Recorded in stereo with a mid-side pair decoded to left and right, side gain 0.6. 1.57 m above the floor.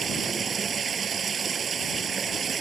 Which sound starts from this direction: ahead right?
Running water, at 0.0 s.